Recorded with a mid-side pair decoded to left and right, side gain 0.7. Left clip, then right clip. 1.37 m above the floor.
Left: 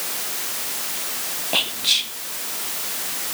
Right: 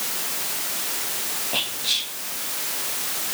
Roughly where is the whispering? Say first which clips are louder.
Left 5 dB; ahead left.